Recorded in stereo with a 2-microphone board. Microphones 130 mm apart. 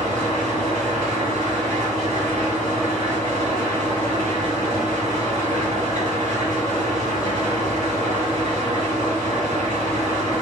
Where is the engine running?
85° right, 1.8 m.